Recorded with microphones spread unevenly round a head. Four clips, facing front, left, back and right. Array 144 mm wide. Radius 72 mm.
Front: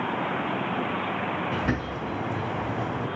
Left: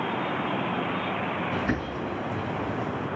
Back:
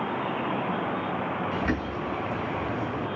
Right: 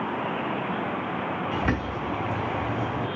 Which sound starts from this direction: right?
A bird, at 1.5 s.